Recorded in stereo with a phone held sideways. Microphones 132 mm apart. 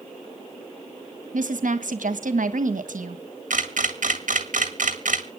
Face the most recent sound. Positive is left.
turn(degrees=-80)